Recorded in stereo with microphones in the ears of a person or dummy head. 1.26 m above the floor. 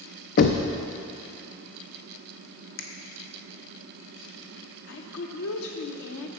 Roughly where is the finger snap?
Left.